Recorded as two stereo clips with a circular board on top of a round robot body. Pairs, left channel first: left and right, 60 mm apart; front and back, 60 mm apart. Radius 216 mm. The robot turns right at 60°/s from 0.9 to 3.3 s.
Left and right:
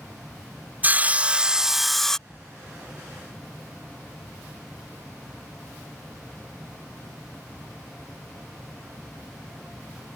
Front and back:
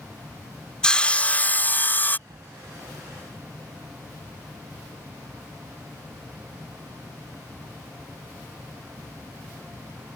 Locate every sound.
0.8 s sawing: 60° right; by 2.2 s 15° left
2.3 s a thud: 170° left; by 2.6 s 170° right